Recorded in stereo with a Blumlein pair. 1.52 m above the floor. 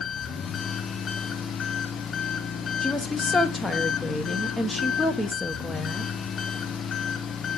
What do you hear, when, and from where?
0.0 s an engine running: 25° left, 0.7 m
2.8 s a woman speaking: 5° left, 1.1 m